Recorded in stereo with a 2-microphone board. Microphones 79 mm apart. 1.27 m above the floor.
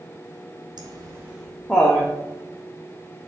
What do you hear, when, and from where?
0.8 s laughter: 75° right (ahead or behind), 0.5 m; by 2.1 s 15° left (ahead or behind), 1.2 m